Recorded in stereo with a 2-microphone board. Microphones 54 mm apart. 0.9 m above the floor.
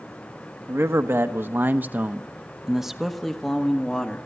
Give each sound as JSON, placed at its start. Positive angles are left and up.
{"t": 0.7, "sound": "a man speaking", "side_deg": -50, "distance_m": 1.3}